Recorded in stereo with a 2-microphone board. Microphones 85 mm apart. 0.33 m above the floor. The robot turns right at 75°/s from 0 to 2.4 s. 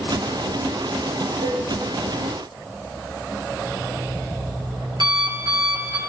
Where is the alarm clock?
65° right (ahead or behind), 3 m.